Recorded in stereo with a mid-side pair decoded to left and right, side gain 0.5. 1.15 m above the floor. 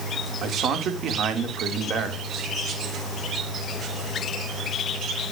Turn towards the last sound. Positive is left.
turn(degrees=-60)